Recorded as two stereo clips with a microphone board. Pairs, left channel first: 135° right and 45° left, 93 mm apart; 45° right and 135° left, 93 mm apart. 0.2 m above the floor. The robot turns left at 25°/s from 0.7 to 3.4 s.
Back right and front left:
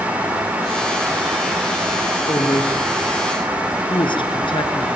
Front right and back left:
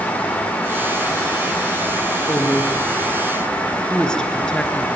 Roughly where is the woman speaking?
Right.